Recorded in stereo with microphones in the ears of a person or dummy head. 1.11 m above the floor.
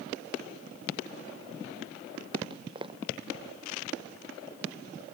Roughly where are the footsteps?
Right.